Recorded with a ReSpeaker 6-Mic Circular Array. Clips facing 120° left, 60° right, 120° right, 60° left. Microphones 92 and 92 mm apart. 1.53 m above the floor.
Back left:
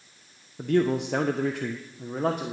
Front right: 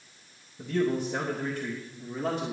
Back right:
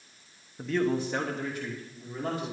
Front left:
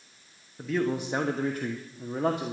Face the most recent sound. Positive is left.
turn(degrees=80)